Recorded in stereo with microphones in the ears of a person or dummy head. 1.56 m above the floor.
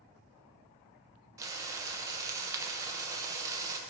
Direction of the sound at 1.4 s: 15° right (ahead or behind).